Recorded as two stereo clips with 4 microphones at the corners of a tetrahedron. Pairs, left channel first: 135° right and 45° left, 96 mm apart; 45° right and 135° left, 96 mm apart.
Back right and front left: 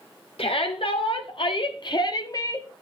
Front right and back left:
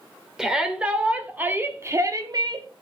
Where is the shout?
140° right, 2.5 m; by 2.7 s 165° left, 1.3 m.